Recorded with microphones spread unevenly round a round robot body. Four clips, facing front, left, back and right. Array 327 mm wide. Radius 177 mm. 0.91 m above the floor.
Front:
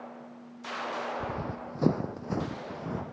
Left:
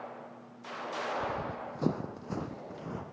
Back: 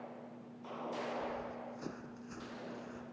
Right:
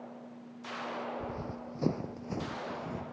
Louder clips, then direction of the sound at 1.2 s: Left 4 dB, front 6 dB; 5° left.